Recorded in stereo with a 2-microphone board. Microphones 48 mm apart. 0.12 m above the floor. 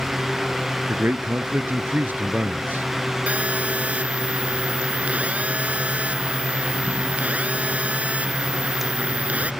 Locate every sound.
0.9 s a man speaking: 45° right (ahead or behind)
3.3 s a phone buzzing: 35° right (ahead or behind)